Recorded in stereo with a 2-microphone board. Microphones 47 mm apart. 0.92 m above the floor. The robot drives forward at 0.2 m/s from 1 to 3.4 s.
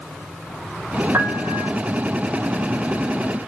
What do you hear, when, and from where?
1.1 s a piano: 75° right (ahead or behind), 0.9 m; by 1.7 s 70° right (ahead or behind), 0.9 m